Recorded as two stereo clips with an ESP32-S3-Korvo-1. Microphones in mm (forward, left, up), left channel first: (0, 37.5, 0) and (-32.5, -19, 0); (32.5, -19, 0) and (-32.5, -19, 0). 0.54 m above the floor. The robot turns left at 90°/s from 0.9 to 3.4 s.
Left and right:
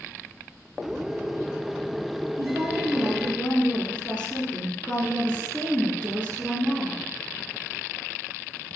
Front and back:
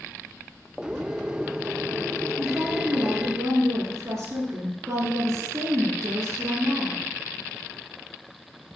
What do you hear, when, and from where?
2.4 s a woman speaking: 135° right, 8.5 m; by 7.0 s 135° left, 8.5 m